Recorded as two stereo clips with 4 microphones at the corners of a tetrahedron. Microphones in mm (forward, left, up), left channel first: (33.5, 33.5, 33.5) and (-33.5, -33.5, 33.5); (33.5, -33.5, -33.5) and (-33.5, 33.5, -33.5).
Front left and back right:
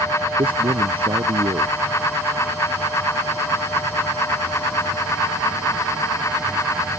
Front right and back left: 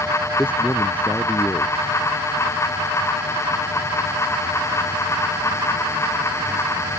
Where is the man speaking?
115° right.